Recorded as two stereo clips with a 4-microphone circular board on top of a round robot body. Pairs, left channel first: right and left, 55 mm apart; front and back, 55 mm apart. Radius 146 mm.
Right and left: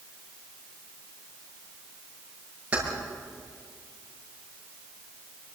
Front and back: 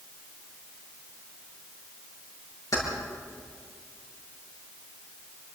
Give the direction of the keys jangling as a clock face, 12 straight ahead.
11 o'clock.